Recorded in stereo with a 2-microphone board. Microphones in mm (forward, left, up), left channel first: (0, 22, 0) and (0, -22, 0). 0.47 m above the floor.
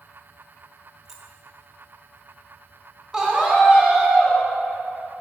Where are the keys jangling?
10° right (ahead or behind), 0.7 m.